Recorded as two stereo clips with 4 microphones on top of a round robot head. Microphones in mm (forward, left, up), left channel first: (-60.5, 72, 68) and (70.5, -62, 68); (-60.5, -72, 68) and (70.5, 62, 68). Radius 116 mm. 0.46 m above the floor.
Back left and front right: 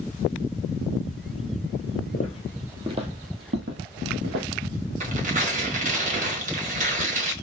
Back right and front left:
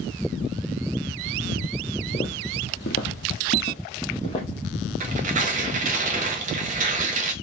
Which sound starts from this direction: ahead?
Tearing paper, at 5.0 s.